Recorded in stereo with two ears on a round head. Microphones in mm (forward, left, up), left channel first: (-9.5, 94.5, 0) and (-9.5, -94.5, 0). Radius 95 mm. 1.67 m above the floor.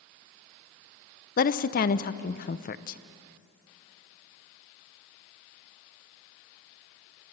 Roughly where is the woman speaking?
Left.